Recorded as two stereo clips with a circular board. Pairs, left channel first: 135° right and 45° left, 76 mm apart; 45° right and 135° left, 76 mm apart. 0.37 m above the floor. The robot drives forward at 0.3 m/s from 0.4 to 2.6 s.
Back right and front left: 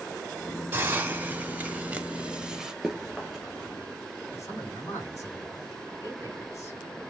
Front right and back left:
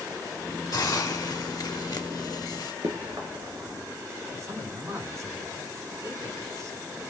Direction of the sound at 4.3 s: 175° left.